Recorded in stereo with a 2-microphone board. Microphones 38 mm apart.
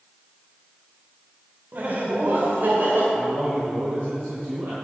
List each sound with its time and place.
1.7 s laughter: 50° right (ahead or behind), 2 m; by 3.0 s 60° right (ahead or behind), 2.5 m
3.1 s a man speaking: 65° right (ahead or behind), 4 m